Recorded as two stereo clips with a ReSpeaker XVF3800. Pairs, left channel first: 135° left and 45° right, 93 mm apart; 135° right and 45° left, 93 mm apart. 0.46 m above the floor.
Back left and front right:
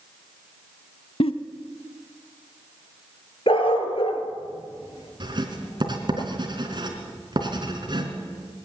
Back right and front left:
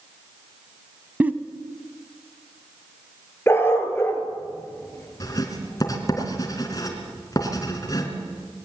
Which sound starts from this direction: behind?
A dog barking, at 3.5 s.